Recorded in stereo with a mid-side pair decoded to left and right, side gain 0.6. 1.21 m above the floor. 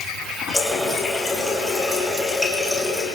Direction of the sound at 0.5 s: 10° left.